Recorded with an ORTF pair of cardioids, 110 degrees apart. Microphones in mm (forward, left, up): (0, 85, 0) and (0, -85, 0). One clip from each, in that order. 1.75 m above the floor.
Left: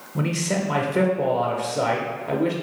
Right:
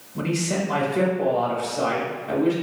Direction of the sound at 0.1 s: 40° left.